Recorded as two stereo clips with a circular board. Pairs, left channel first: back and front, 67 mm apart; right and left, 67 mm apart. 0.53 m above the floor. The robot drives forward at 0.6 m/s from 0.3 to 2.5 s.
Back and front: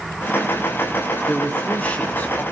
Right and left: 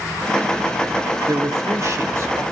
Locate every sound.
1.3 s a man speaking: 115° left, 2.5 m; by 2.4 s 130° left, 3 m